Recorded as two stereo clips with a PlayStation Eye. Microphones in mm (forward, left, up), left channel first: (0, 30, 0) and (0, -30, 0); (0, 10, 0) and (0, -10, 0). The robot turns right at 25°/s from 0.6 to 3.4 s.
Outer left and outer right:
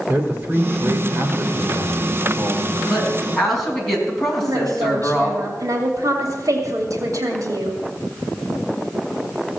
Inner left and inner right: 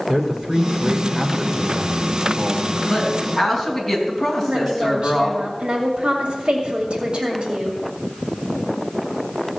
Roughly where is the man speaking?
Behind right.